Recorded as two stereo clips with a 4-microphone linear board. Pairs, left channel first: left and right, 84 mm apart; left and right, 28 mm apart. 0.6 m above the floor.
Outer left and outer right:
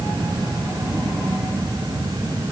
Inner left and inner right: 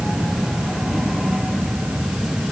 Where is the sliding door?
No sliding door in this recording.